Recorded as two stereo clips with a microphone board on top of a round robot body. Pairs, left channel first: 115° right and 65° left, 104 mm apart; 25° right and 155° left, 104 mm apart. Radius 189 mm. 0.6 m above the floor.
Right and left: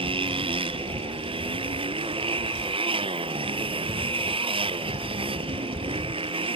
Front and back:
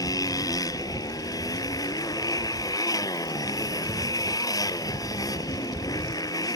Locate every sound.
0.0 s a motorcycle: 35° left